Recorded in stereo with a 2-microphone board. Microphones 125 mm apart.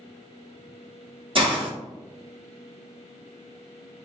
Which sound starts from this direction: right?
A hiss, at 1.4 s.